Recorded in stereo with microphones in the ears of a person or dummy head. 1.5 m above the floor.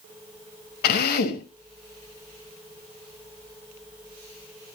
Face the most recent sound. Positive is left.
turn(degrees=40)  # may be behind; listen again after turning